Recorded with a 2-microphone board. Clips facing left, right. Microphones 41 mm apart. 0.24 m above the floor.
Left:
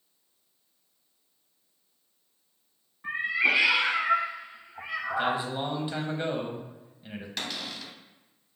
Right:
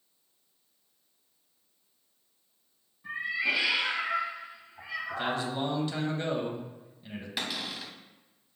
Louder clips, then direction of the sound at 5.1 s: Left 4 dB; 20° left (ahead or behind).